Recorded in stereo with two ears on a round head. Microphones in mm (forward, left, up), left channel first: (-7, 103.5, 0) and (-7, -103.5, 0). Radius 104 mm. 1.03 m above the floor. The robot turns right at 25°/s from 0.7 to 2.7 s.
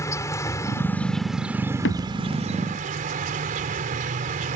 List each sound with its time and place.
0.0 s an insect: 165° left; by 4.6 s 145° right
1.9 s a thud: 55° left (ahead or behind); by 2.3 s 45° left (ahead or behind)